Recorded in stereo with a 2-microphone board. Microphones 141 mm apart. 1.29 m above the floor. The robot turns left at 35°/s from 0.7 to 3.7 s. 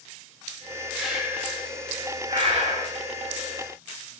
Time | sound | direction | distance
1.0 | breathing | 5° left (ahead or behind) | 5 m